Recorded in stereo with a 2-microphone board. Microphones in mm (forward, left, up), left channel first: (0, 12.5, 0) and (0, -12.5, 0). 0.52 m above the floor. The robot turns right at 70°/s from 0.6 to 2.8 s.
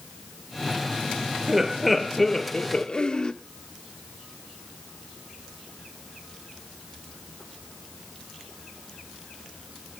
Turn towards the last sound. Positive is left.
turn(degrees=55)